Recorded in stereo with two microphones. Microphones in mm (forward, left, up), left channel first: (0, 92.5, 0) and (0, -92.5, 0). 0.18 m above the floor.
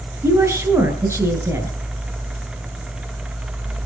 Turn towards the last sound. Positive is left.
turn(degrees=-15)  # may be behind; listen again after turning